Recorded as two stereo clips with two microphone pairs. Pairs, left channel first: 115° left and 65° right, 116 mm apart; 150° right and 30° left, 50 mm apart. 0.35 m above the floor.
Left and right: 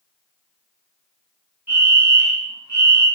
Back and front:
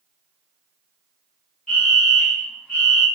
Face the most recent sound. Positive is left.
turn(degrees=-110)